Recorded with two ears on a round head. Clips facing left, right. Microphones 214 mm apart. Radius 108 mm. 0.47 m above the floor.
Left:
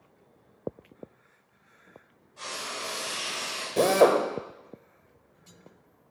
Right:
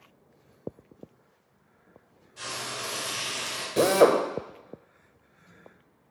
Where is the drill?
5° right (ahead or behind), 0.7 m.